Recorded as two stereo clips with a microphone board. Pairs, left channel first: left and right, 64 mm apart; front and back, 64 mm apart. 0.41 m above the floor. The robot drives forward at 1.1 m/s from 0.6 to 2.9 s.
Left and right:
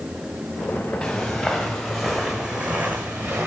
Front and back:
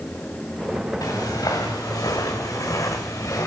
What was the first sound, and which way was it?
Footsteps, 10° left.